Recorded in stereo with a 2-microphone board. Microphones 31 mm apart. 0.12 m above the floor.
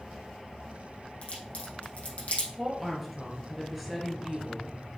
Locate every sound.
1.2 s a crack: 55° left (ahead or behind), 4.5 m
2.6 s a woman speaking: 5° right (ahead or behind), 2.5 m